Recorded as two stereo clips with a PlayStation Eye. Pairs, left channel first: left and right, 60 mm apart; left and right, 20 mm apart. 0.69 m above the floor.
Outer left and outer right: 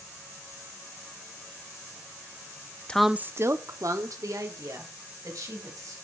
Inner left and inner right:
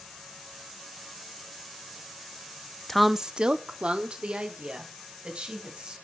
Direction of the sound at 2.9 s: 15° left (ahead or behind).